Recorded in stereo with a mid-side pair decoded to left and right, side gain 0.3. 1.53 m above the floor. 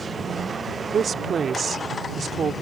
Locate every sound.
0.9 s a woman speaking: 65° right